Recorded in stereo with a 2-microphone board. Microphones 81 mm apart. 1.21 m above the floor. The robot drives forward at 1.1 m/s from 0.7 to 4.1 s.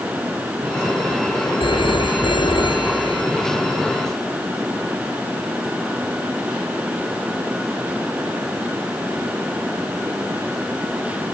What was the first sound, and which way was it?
A phone ringing, 80° left.